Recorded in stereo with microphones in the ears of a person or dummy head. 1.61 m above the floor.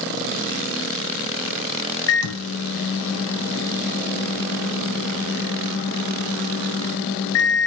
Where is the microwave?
70° left (ahead or behind), 0.5 m.